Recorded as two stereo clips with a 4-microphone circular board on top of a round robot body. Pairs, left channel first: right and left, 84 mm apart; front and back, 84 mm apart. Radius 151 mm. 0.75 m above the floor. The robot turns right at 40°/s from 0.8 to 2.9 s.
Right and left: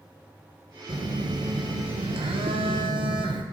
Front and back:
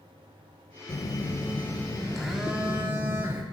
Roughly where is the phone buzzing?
Ahead left.